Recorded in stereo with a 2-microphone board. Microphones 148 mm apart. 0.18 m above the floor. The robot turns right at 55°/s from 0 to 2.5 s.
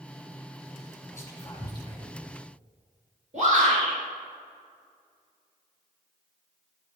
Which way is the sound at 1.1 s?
20° left (ahead or behind).